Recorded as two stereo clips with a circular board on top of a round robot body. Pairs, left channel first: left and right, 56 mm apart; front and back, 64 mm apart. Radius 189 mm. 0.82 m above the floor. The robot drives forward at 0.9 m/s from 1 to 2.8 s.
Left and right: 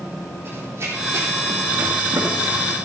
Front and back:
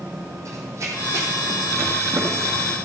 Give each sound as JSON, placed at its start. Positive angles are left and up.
{"t": 0.5, "sound": "running footsteps", "azimuth_deg": -140, "distance_m": 2.5}